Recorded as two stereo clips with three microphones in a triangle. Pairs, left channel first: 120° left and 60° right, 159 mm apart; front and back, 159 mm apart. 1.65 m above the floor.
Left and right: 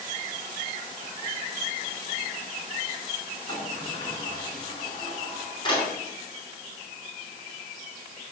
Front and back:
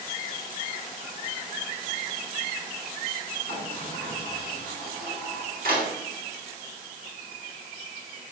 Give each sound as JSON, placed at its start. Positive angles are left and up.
{"t": 3.5, "sound": "a sliding door", "azimuth_deg": -175, "distance_m": 4.5}